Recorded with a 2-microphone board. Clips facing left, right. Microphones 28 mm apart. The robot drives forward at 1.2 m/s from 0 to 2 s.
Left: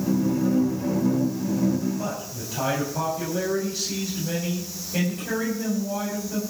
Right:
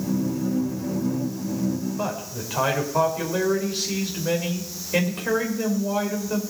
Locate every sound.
2.0 s a man speaking: 70° right (ahead or behind), 5 m